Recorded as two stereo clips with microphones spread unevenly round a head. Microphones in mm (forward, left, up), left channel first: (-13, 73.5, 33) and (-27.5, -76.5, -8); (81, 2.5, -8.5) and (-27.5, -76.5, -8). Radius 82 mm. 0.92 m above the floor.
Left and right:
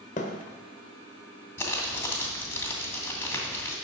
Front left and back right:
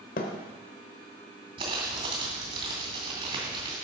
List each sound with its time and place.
0.2 s a thud: 50° left, 1.2 m
1.6 s crumpling: 155° left, 2.5 m